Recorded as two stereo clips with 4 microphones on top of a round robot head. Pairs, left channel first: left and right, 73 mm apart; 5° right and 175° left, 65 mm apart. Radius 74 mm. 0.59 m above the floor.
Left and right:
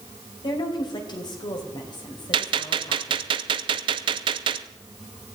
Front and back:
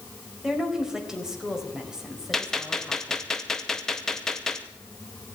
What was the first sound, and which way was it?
A woman speaking, 95° left.